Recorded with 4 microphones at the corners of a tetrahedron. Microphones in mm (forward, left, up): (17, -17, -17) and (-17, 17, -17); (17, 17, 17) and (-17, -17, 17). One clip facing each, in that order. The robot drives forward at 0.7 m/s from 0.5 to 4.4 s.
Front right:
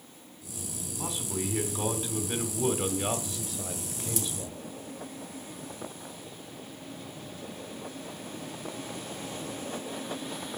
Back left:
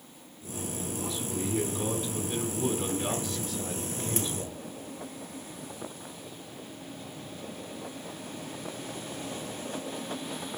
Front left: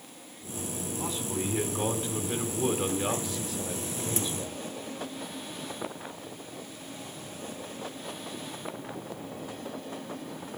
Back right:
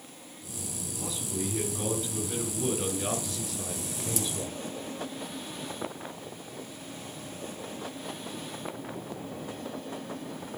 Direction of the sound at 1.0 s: Straight ahead.